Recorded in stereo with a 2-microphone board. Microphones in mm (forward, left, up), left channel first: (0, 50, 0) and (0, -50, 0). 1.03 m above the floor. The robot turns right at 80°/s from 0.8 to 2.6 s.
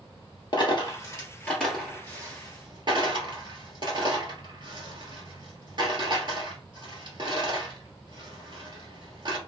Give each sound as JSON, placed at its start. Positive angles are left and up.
{"t": 0.5, "sound": "a dropped coin", "side_deg": 50, "distance_m": 1.5}